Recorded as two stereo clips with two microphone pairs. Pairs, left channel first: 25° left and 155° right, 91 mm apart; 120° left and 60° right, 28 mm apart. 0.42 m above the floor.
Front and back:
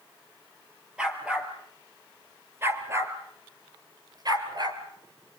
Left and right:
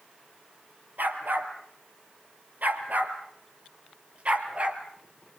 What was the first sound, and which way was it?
A dog barking, 75° right.